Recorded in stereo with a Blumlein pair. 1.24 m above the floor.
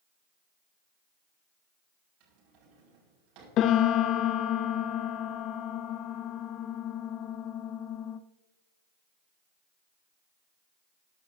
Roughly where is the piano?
Ahead left.